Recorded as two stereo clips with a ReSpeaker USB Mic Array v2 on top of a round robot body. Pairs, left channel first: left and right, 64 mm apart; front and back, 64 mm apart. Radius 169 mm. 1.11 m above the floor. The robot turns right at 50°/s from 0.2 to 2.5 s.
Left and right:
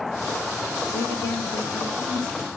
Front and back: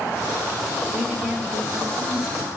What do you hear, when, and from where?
0.9 s a woman speaking: 100° left, 1.4 m; by 2.5 s 175° left, 1.4 m